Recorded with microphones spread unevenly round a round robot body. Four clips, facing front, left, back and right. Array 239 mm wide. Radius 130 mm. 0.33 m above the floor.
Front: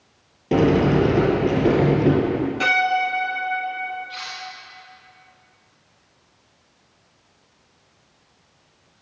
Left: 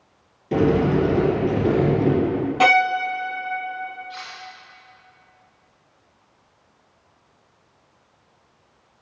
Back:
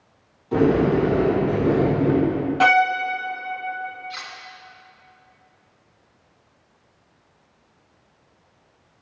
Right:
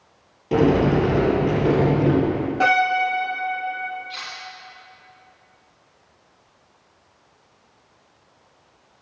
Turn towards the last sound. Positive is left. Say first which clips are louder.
# even, front 1 dB
turn(degrees=-130)